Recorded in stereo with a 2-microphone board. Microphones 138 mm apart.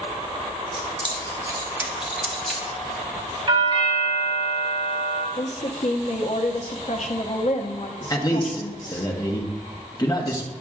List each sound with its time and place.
0.7 s keys jangling: 45° right (ahead or behind), 1.2 m; by 3.4 s 20° left (ahead or behind), 1.5 m
3.5 s a doorbell: 40° right (ahead or behind), 1.6 m
5.4 s a woman speaking: 60° left (ahead or behind), 0.8 m
8.1 s a man speaking: 30° left (ahead or behind), 1.0 m